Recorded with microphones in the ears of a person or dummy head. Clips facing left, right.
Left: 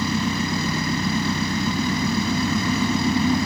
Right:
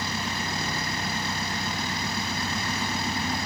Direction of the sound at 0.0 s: 80° left.